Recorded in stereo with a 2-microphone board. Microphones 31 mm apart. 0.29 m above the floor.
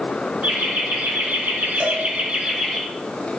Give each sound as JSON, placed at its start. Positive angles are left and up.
{"t": 0.4, "sound": "laughter", "side_deg": -60, "distance_m": 3.0}
{"t": 1.8, "sound": "a cowbell", "side_deg": -35, "distance_m": 1.2}